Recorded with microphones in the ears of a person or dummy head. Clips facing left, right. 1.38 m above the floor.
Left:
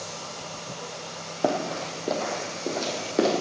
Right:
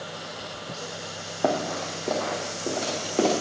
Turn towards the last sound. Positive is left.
turn(degrees=20)  # may be behind; listen again after turning